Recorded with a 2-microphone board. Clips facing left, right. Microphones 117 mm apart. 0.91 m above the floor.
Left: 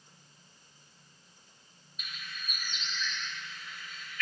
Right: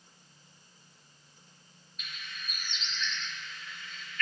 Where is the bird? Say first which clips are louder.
Even; 5° left (ahead or behind), 2.5 m.